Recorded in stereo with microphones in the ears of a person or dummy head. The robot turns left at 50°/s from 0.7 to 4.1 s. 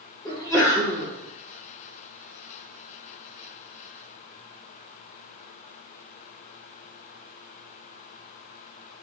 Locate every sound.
0.2 s a sneeze: 5° left (ahead or behind), 1.4 m; by 1.1 s 15° right (ahead or behind), 1.4 m